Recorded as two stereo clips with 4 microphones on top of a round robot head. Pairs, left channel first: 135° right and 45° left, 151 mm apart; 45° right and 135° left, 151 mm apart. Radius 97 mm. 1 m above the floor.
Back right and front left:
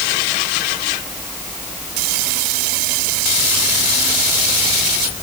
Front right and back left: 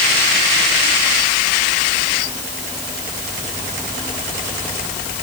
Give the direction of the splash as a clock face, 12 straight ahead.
I don't hear a splash.